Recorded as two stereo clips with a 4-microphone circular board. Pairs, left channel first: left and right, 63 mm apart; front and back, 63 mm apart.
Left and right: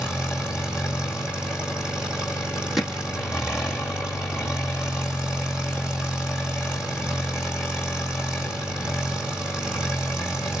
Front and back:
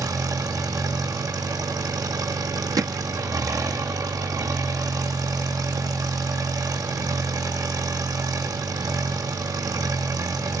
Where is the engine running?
165° right, 4.5 m.